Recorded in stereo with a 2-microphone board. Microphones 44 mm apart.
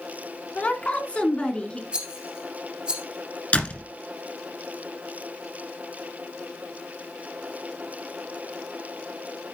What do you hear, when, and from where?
0.6 s a woman speaking: 35° left (ahead or behind), 2 m; by 1.8 s 25° left (ahead or behind), 2.5 m
1.9 s a rattle: 25° right (ahead or behind), 2 m
3.5 s a door slam: 30° left (ahead or behind), 1.7 m